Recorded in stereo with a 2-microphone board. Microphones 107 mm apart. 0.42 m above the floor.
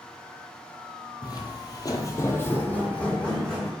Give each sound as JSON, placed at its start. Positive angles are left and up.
{"t": 1.2, "sound": "footsteps", "side_deg": 40, "distance_m": 0.5}